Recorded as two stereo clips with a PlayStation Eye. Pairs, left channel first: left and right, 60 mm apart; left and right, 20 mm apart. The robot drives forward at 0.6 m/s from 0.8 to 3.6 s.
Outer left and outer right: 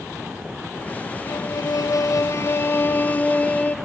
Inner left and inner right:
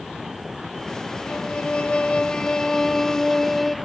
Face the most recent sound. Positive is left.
turn(degrees=25)  # may be behind; listen again after turning